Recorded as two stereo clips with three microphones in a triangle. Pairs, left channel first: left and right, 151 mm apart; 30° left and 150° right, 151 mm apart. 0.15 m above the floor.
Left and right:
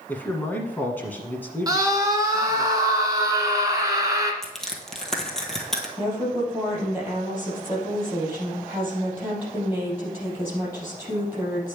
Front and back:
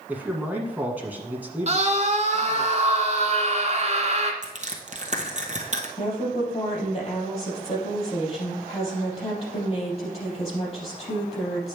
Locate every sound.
0.1 s a man speaking: 150° left, 1.4 m
1.7 s a scream: 145° right, 1.6 m
4.4 s crushing: 175° left, 1.3 m
6.0 s a woman speaking: 15° right, 3.5 m